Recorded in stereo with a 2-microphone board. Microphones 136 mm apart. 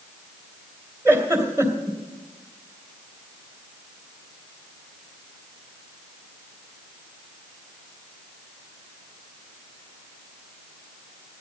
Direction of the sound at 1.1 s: 15° right (ahead or behind).